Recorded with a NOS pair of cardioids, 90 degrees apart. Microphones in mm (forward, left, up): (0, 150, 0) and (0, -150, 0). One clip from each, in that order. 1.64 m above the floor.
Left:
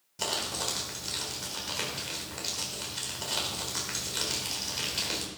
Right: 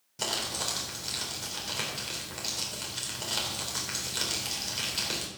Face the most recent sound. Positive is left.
turn(degrees=0)